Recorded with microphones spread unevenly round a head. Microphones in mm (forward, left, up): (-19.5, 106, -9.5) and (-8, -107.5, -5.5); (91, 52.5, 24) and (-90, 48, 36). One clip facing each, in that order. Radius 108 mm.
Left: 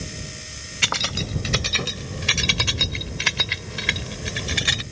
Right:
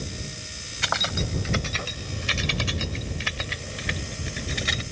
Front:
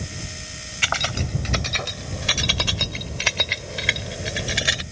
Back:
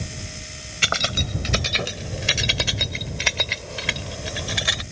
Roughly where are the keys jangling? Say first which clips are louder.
Even, even; behind left.